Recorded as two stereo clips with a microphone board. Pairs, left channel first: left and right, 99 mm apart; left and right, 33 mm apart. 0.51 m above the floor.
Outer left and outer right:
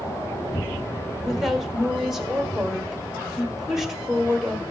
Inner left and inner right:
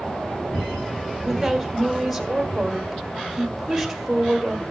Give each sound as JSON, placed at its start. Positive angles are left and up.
{"t": 1.2, "sound": "a woman speaking", "side_deg": -5, "distance_m": 1.5}